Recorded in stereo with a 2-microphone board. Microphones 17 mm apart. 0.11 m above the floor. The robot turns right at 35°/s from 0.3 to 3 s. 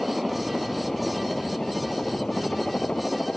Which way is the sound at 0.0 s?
5° right.